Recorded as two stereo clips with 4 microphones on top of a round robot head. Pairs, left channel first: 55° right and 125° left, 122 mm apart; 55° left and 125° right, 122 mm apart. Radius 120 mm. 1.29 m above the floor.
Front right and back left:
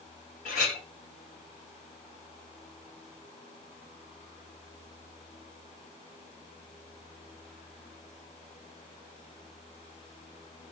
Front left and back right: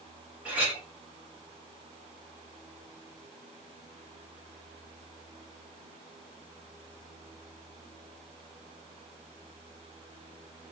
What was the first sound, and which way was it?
A clink, 45° right.